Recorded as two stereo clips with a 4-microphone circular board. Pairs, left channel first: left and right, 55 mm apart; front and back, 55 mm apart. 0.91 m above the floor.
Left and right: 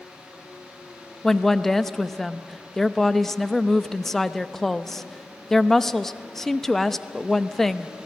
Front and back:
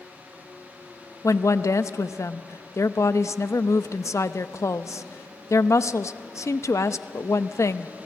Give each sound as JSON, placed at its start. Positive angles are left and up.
{"t": 1.2, "sound": "a woman speaking", "azimuth_deg": 5, "distance_m": 0.6}